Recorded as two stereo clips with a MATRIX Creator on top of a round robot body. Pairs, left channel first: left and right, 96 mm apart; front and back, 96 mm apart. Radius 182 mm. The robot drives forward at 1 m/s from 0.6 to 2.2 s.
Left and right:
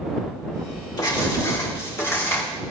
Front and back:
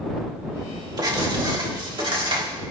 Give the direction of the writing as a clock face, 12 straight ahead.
7 o'clock.